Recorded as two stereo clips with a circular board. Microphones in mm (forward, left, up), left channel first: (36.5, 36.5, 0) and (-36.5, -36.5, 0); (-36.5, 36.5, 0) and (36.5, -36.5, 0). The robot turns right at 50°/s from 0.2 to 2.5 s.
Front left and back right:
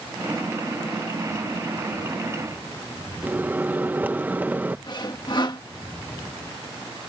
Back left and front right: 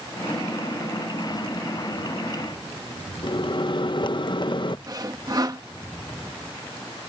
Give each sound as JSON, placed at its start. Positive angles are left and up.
{"t": 3.2, "sound": "a microwave", "azimuth_deg": 155}
{"t": 4.9, "sound": "sawing", "azimuth_deg": 5}